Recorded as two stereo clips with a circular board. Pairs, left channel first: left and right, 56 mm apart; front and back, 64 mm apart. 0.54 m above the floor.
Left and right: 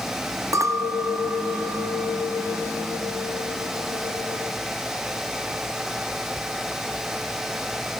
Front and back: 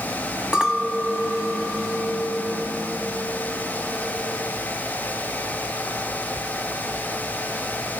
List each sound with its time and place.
0.5 s a clink: 100° right, 3 m